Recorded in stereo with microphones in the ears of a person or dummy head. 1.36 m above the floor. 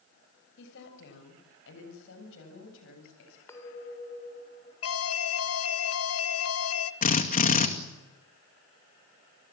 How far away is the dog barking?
I don't hear a dog barking.